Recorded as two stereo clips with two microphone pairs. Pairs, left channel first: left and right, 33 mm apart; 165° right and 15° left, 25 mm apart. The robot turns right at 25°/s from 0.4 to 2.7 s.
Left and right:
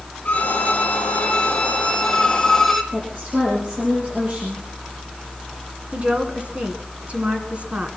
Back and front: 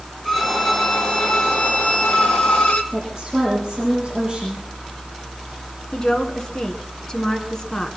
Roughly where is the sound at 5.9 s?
Behind right.